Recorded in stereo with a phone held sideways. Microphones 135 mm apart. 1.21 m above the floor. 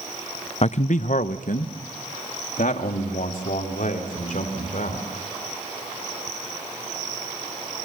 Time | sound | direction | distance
0.6 | a man speaking | 50° left (ahead or behind) | 0.6 m